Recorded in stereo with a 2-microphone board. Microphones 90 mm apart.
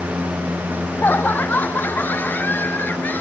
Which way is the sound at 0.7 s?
20° left (ahead or behind).